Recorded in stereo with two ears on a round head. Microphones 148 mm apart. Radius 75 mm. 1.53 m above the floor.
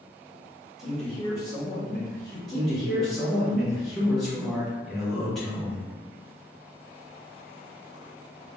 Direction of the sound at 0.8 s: 5° right (ahead or behind).